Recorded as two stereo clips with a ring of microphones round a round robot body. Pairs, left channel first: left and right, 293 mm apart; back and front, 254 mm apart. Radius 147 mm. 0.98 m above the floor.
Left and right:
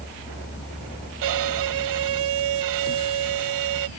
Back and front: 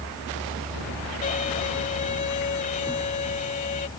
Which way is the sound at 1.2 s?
115° right.